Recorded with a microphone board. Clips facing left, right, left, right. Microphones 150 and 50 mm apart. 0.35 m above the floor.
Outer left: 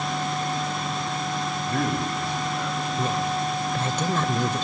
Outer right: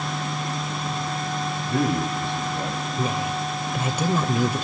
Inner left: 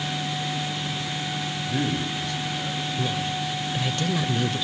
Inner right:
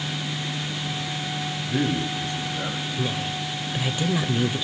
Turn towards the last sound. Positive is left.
turn(degrees=-10)  # may be behind; listen again after turning